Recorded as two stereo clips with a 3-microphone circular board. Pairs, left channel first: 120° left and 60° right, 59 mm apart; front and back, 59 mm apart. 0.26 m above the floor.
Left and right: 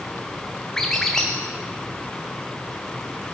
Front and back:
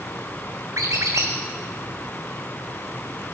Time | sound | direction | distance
0.8 | a squeak | 160° right | 1.2 m